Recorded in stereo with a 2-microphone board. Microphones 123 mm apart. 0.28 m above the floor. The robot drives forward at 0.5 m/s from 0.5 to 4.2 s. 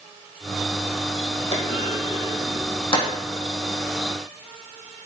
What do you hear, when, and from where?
1.5 s a clunk: 60° left (ahead or behind), 3 m; by 3.1 s 45° left (ahead or behind), 3.5 m